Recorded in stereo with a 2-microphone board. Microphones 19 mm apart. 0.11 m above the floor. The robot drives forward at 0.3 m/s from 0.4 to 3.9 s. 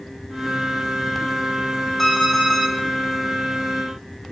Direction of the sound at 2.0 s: 15° left (ahead or behind).